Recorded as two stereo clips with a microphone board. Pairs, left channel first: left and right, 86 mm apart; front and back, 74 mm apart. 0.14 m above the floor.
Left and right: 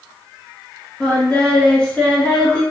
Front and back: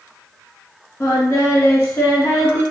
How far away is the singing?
About 1.0 m.